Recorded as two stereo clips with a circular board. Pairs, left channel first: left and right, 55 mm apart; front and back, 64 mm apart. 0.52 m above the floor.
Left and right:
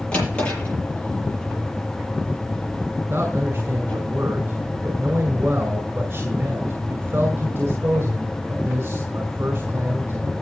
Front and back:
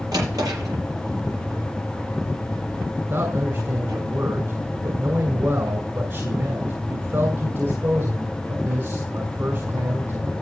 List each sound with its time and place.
0.1 s a drawer: 160° left, 7 m
3.1 s a man speaking: 135° right, 2 m